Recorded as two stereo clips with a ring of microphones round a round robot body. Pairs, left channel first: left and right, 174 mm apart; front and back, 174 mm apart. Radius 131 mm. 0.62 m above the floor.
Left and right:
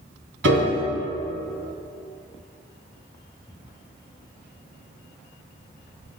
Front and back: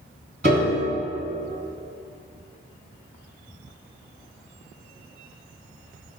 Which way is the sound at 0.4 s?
115° right.